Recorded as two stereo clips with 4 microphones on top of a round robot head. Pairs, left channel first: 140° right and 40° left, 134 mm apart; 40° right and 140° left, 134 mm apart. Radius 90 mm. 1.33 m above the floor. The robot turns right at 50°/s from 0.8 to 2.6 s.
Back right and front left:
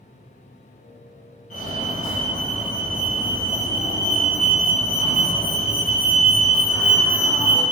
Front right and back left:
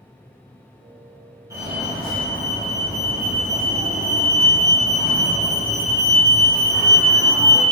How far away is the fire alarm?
About 3 m.